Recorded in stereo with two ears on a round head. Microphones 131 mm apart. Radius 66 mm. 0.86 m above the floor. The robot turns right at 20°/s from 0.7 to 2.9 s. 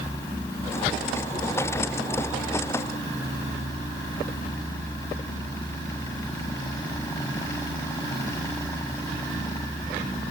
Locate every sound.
Only background noise.